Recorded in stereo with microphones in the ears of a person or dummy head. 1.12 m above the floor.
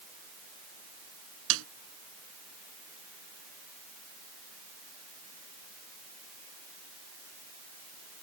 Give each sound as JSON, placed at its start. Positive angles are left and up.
{"t": 1.5, "sound": "a snare drum", "side_deg": -70}